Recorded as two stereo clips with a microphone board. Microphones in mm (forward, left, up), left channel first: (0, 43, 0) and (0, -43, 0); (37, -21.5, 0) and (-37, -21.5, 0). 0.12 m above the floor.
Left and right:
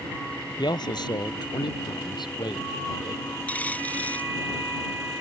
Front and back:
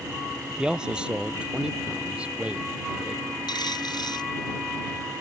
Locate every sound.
0.6 s a man speaking: 105° left; by 3.2 s 110° left
3.5 s a dropped coin: 15° left